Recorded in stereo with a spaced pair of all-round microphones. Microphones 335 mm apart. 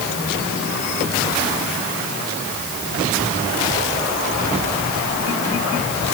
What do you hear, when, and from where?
Only background noise.